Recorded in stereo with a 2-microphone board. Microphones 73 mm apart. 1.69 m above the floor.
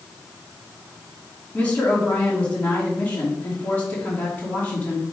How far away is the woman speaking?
About 2.5 m.